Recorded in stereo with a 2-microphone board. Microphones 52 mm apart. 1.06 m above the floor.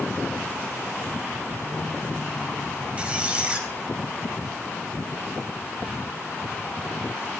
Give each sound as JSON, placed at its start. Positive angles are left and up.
{"t": 3.0, "sound": "a squeak", "side_deg": -25, "distance_m": 3.5}